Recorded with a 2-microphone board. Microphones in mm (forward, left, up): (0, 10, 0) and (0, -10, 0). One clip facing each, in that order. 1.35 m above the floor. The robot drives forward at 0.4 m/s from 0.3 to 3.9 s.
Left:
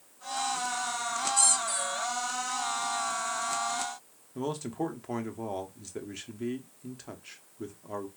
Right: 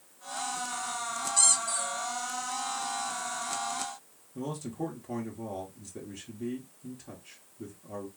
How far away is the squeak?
About 1.0 m.